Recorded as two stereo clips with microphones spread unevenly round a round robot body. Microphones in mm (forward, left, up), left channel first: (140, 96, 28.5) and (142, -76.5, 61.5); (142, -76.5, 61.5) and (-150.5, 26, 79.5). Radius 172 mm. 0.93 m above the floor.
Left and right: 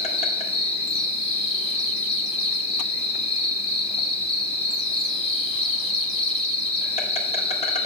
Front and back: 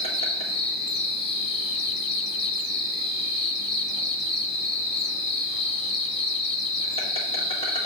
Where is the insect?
50° left, 1.7 m.